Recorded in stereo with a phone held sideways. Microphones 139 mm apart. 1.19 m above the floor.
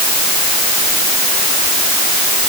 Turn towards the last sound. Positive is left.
No sound to turn to.